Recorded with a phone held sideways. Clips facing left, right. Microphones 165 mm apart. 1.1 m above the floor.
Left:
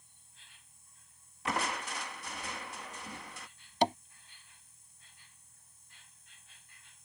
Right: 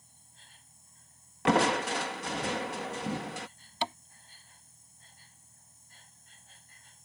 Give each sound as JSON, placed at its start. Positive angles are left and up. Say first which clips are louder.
{"t": 0.0, "sound": "an insect", "louder": "right 5 dB", "side_deg": -40}
{"t": 1.4, "sound": "crushing", "louder": "right 11 dB", "side_deg": -70}
{"t": 3.8, "sound": "tapping", "louder": "left 6 dB", "side_deg": 40}